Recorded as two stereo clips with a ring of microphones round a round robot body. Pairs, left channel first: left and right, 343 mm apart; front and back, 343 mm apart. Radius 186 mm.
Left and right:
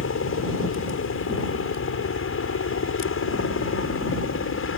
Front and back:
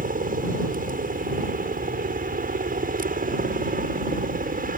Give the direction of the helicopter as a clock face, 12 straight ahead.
8 o'clock.